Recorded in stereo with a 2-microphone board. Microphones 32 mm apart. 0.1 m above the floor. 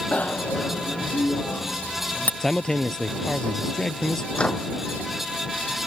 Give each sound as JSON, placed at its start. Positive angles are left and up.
{"t": 0.1, "sound": "a bicycle bell", "side_deg": 50}
{"t": 2.4, "sound": "a man speaking", "side_deg": 15}
{"t": 4.3, "sound": "a microwave", "side_deg": 35}